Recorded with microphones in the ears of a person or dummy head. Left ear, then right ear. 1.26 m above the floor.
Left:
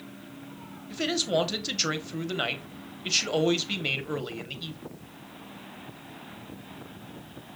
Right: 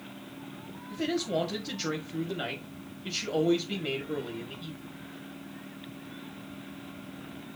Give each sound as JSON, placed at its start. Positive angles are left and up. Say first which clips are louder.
{"t": 0.9, "sound": "a man speaking", "louder": "left 4 dB", "side_deg": 35, "distance_m": 1.3}